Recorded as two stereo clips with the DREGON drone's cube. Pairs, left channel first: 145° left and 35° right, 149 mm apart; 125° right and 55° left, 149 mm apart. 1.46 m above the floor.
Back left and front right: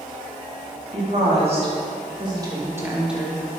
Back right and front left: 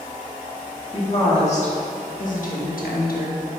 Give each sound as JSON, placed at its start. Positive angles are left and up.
{"t": 0.9, "sound": "a woman speaking", "azimuth_deg": -75, "distance_m": 2.5}